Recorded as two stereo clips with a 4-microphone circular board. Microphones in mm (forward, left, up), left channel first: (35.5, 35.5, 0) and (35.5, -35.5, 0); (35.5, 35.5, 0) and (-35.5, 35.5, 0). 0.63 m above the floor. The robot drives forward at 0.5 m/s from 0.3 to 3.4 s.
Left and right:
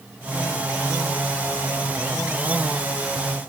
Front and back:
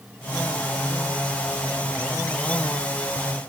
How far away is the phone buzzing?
No phone buzzing in this recording.